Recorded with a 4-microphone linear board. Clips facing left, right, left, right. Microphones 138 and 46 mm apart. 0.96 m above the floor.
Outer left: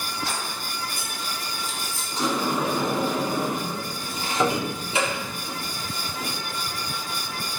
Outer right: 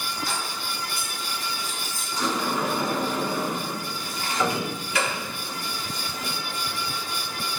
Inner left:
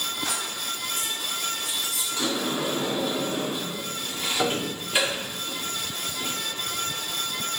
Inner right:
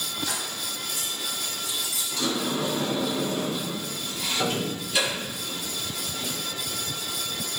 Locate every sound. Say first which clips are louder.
0.2 s keys jangling: even, inner left 2 dB; 85° left, 3.5 m; by 2.1 s 75° left (ahead or behind), 2.5 m
2.2 s a sliding door: outer left 2 dB, even; 25° left (ahead or behind), 1.4 m